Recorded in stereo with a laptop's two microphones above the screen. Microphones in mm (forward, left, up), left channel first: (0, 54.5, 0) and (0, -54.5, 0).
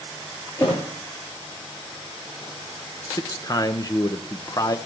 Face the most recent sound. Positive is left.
turn(degrees=35)  # may be behind; listen again after turning